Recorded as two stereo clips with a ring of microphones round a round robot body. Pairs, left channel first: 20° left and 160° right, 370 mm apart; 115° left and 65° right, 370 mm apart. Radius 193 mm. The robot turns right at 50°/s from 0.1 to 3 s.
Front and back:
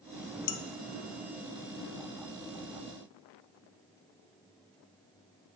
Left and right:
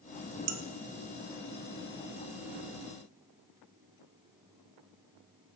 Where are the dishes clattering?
20° right, 0.7 m; by 0.6 s 10° right, 0.7 m.